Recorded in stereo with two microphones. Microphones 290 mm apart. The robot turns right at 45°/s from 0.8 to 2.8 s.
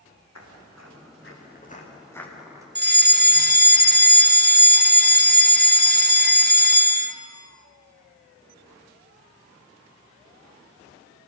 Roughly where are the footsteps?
Left.